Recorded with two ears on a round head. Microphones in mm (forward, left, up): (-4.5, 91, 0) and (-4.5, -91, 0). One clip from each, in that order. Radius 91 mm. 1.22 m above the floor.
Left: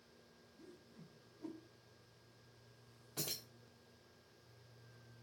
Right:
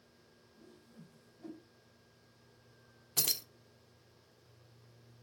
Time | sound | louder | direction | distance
0.6 | a whoosh | right 1 dB | 20° left (ahead or behind) | 1.3 m
3.2 | keys jangling | right 10 dB | 50° right (ahead or behind) | 0.6 m